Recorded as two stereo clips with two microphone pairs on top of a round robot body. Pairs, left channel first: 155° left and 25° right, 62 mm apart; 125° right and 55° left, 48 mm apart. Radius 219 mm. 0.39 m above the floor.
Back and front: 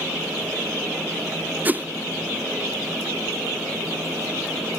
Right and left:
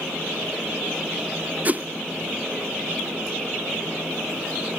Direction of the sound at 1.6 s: 35° left.